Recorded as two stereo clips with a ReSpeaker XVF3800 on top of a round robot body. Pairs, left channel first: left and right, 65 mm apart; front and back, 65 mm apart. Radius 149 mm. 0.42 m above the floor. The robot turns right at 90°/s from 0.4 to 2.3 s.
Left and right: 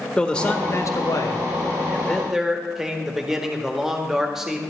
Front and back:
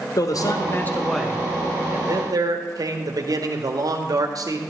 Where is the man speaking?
15° left, 1.6 m; by 4.6 s 170° right, 1.6 m.